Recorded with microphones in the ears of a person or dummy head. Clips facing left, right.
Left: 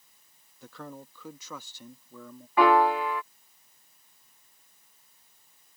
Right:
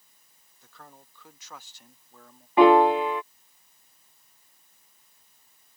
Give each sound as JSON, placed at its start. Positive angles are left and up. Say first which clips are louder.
{"t": 0.6, "sound": "a man speaking", "louder": "left 10 dB", "side_deg": 50}
{"t": 2.6, "sound": "a piano", "louder": "right 5 dB", "side_deg": -15}